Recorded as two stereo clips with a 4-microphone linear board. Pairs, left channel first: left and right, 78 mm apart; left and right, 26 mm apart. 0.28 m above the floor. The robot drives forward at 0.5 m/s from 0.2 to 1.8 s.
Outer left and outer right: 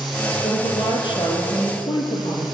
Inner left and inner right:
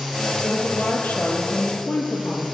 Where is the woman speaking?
75° left (ahead or behind), 7 m.